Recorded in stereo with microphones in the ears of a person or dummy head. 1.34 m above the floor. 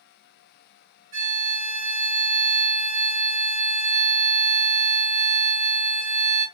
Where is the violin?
40° right (ahead or behind), 1.4 m.